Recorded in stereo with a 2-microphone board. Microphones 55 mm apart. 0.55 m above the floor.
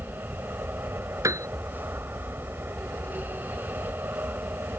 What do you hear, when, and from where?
0.0 s an aircraft: 40° right (ahead or behind)
1.2 s a piano: 70° right (ahead or behind)